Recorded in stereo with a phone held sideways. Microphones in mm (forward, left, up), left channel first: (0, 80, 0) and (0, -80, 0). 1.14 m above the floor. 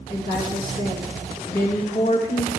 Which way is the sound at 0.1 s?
70° left (ahead or behind).